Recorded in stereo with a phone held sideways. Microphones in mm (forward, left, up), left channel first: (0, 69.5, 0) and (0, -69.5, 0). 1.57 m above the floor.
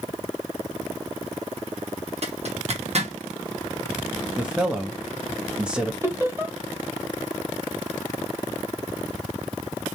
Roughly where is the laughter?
Centre.